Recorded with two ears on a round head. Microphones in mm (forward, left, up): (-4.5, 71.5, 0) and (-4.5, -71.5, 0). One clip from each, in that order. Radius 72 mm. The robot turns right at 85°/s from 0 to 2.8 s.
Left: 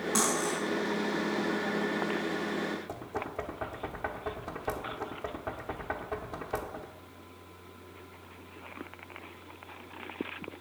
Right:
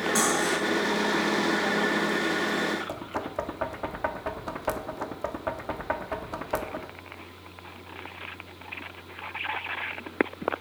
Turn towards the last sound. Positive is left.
turn(degrees=-30)  # may be behind; listen again after turning